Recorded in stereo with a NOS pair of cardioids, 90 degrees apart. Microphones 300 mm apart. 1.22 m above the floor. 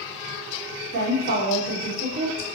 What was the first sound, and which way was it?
A woman speaking, 70° right.